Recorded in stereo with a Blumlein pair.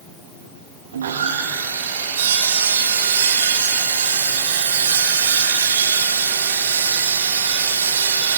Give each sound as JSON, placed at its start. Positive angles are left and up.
{"t": 0.9, "sound": "sawing", "azimuth_deg": -65, "distance_m": 2.5}